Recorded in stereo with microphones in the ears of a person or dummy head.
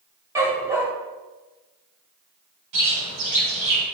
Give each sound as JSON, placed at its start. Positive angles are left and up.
{"t": 0.3, "sound": "a dog barking", "side_deg": -20, "distance_m": 2.0}
{"t": 2.7, "sound": "a bird", "side_deg": -70, "distance_m": 3.0}